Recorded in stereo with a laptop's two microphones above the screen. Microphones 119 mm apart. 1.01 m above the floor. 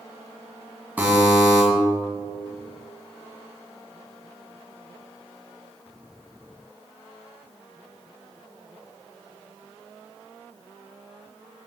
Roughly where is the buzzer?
Centre.